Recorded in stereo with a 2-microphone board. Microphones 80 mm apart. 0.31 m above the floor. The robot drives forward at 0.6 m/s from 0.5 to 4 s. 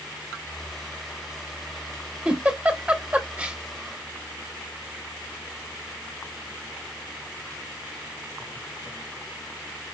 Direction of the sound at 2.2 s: 15° right (ahead or behind).